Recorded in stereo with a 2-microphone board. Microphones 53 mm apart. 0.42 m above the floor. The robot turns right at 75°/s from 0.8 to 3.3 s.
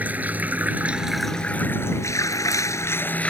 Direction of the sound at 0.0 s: 30° right.